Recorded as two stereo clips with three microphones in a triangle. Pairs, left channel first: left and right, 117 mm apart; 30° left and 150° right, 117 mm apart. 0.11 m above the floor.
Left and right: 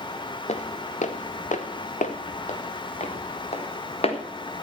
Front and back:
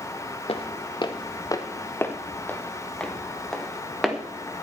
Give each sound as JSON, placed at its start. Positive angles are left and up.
{"t": 0.5, "sound": "footsteps", "azimuth_deg": 70, "distance_m": 1.5}